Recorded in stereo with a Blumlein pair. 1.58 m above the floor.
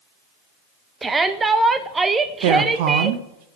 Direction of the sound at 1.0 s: 10° right.